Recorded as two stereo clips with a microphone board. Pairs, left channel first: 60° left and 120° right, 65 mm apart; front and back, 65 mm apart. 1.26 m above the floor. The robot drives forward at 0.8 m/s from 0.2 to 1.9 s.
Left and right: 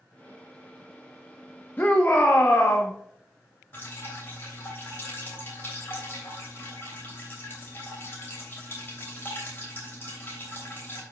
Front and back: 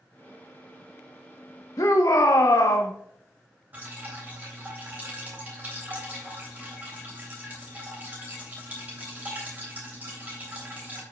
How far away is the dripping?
About 3 m.